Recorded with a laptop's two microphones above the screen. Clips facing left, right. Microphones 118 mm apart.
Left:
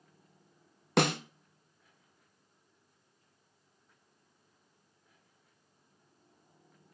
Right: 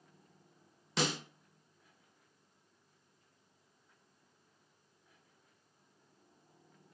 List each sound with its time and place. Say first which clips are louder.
1.0 s a snare drum: left 7 dB; 60° left (ahead or behind), 0.5 m